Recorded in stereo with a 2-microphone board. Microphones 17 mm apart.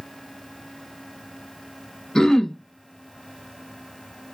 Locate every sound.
2.1 s throat clearing: 40° left (ahead or behind), 0.6 m